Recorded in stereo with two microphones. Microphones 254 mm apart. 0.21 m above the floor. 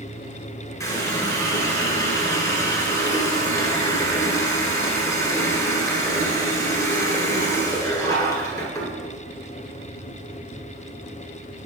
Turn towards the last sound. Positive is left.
turn(degrees=15)  # may be behind; listen again after turning